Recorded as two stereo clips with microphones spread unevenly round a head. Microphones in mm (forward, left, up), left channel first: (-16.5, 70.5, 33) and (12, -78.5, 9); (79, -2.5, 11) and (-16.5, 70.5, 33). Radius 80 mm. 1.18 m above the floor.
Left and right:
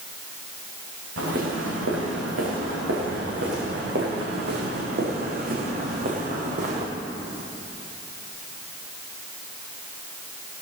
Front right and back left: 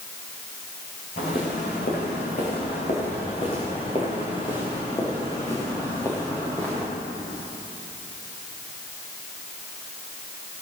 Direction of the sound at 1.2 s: 80° right.